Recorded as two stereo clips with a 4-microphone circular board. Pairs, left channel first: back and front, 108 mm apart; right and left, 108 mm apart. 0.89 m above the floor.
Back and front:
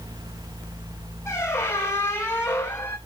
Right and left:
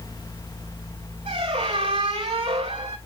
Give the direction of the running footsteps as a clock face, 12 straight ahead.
I don't hear running footsteps.